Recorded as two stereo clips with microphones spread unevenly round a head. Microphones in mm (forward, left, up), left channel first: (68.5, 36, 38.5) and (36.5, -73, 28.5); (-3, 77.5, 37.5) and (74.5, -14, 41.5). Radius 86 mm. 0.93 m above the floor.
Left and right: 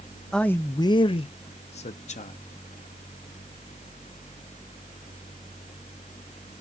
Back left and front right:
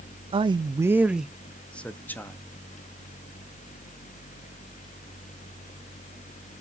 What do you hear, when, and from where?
0.3 s a man speaking: 15° right, 0.6 m; by 2.4 s 60° left, 1.3 m